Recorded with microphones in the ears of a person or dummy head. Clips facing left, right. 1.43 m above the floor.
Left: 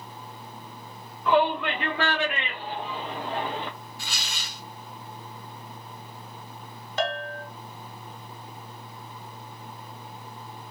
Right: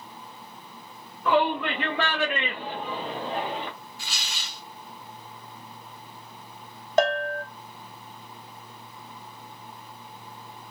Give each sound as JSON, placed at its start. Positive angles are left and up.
{"t": 1.2, "sound": "a shout", "side_deg": -55, "distance_m": 1.2}
{"t": 4.0, "sound": "tearing paper", "side_deg": 50, "distance_m": 0.8}
{"t": 7.0, "sound": "a bell", "side_deg": -45, "distance_m": 0.7}